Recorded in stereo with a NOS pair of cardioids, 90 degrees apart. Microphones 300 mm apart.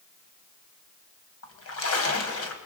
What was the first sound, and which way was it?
A splash, 50° left.